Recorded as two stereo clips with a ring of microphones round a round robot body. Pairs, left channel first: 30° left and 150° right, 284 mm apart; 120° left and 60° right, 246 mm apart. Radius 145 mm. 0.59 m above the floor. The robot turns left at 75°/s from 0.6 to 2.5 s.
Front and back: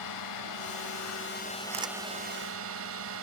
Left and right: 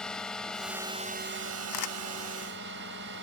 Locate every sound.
0.0 s a drone: 35° left; by 3.2 s 110° right
1.7 s a camera shutter: 145° left; by 1.9 s 125° left